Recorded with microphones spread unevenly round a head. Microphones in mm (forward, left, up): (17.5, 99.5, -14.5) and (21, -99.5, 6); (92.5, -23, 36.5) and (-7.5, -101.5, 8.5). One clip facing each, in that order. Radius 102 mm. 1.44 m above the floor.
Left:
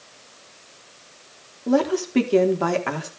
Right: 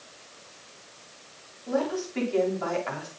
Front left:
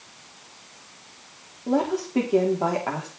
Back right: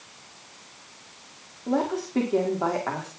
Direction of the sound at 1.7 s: 120° left.